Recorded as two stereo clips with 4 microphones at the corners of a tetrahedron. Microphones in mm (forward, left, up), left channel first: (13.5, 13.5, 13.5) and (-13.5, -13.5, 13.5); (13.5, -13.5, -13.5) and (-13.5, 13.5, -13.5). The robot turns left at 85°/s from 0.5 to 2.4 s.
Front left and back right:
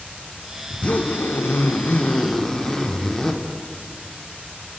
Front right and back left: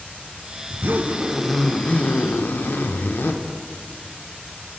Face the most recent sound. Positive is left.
turn(degrees=-35)